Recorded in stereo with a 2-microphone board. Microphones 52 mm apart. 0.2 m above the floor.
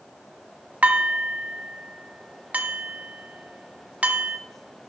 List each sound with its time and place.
0.8 s dishes clattering: 30° right (ahead or behind), 0.8 m